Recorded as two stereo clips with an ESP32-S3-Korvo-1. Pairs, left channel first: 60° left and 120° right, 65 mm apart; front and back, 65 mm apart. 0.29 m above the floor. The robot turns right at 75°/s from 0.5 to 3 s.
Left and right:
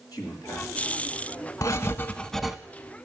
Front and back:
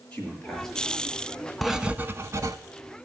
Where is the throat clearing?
No throat clearing in this recording.